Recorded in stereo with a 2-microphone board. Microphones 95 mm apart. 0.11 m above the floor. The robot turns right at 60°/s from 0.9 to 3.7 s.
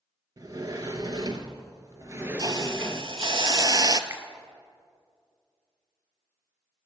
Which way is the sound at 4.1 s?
25° right (ahead or behind).